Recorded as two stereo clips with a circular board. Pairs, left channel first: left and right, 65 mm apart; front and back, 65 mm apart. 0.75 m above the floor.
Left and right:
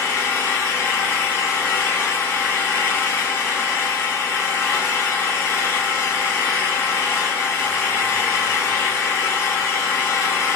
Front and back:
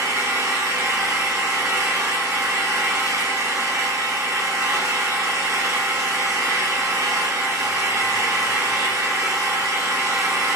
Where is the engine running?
145° left, 1.4 m.